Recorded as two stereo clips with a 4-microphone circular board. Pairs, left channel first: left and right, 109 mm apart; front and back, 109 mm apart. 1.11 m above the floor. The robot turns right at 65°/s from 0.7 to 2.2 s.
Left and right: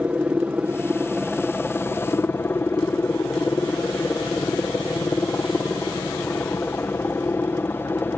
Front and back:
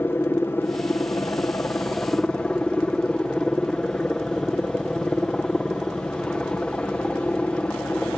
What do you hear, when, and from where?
0.0 s a helicopter: 30° right; by 8.2 s 65° left